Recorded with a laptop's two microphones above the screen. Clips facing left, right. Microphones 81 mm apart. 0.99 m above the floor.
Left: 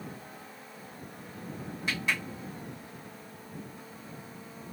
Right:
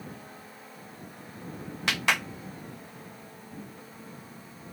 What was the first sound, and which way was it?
A clap, 75° right (ahead or behind).